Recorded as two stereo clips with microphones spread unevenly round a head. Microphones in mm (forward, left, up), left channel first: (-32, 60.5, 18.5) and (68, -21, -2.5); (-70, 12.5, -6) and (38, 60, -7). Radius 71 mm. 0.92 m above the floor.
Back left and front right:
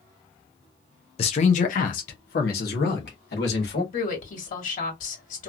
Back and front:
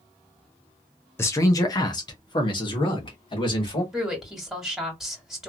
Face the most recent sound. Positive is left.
turn(degrees=110)